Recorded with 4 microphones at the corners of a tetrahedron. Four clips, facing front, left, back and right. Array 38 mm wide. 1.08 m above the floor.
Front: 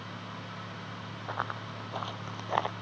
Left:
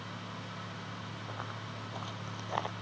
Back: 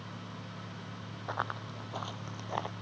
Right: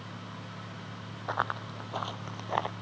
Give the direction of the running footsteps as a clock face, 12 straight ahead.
3 o'clock.